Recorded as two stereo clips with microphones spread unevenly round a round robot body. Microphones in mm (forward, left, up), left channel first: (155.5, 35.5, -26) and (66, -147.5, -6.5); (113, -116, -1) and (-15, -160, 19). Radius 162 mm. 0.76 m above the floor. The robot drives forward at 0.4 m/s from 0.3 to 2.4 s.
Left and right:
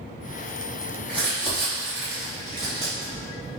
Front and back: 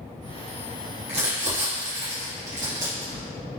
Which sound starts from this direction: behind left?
Crumpling, at 1.1 s.